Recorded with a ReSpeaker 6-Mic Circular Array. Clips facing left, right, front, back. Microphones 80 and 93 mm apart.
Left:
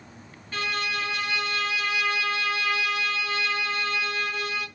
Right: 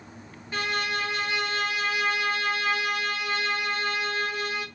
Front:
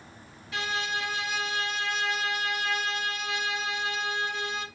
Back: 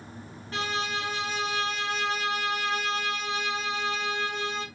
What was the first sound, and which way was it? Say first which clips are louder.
A violin: right 1 dB, back 1 dB; 160° right.